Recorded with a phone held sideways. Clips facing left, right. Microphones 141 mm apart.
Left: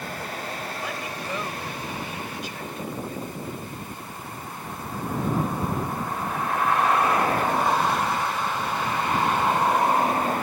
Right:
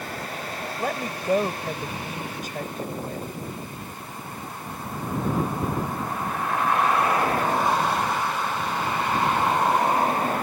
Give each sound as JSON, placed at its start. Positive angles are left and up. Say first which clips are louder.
{"t": 0.8, "sound": "a woman speaking", "louder": "right 4 dB", "side_deg": -45}